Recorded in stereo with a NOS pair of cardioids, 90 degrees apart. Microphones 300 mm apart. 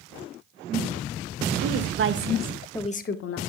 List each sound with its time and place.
1.6 s a woman speaking: 55° right, 2.0 m; by 3.4 s 55° left, 1.4 m